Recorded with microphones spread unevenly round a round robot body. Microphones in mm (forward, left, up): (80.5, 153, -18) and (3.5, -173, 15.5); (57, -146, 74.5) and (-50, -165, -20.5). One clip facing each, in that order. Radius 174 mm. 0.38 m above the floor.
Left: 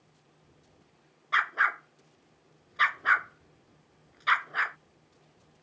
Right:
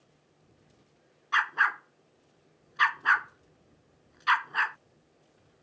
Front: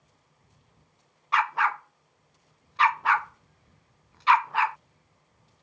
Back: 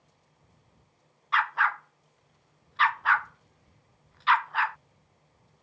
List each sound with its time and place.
1.3 s a dog barking: 25° right